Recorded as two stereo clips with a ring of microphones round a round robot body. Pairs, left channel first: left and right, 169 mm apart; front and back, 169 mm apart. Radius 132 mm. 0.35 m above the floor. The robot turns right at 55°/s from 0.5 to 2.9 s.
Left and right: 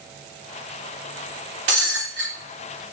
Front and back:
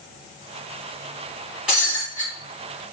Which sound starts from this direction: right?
Breaking glass, at 1.7 s.